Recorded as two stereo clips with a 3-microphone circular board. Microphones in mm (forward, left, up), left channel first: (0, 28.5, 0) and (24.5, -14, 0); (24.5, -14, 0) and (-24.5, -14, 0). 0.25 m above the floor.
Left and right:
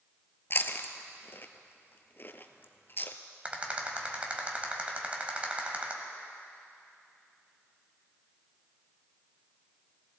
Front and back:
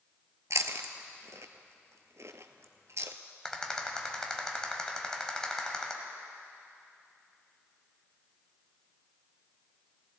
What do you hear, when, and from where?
0.5 s chewing: 165° left, 0.7 m
3.5 s a rattle: 60° right, 1.4 m